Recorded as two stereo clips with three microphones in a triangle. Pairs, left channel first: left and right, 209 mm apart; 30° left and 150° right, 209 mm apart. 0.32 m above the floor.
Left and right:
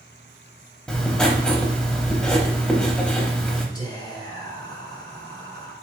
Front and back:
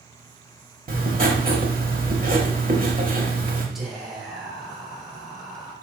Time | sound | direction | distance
0.9 | writing | 175° left | 0.7 m
3.8 | whispering | 120° left | 0.9 m